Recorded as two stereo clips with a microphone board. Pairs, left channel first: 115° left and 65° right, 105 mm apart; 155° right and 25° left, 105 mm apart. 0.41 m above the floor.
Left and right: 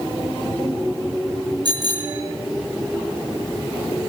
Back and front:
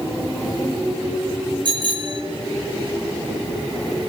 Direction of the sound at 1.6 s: 20° right.